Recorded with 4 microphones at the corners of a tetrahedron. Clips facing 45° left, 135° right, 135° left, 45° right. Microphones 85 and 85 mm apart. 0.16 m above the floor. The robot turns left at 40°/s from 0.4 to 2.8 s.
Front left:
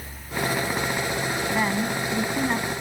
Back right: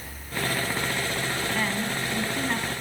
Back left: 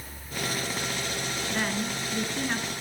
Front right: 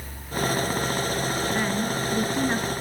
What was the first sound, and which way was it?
A woman speaking, 40° left.